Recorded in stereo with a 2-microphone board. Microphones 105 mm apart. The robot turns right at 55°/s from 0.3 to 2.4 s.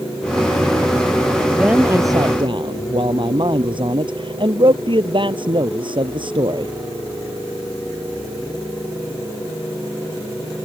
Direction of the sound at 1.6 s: 175° right.